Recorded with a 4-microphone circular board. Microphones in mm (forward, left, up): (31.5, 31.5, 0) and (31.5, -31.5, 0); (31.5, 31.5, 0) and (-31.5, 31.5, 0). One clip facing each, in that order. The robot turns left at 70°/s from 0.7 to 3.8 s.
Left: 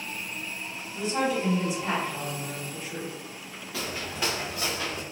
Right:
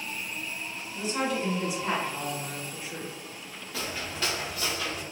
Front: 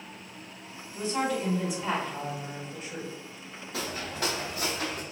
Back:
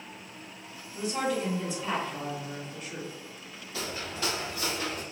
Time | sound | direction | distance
0.9 | a woman speaking | 110° left | 1.5 m
3.7 | footsteps | straight ahead | 1.3 m